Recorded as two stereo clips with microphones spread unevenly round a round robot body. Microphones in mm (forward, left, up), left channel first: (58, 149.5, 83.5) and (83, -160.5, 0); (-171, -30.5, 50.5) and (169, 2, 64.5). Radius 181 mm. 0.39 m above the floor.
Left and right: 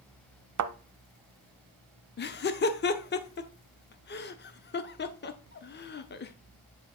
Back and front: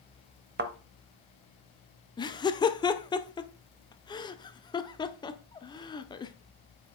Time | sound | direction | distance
0.6 | a thud | 55° right | 0.9 m
2.2 | laughter | 135° left | 0.8 m